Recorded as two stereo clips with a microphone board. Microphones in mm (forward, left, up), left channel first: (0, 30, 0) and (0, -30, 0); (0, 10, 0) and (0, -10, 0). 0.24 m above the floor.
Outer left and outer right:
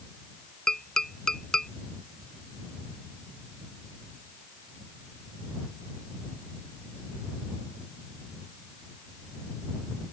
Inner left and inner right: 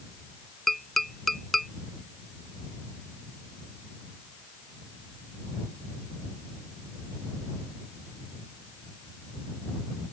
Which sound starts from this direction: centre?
Tapping, at 0.7 s.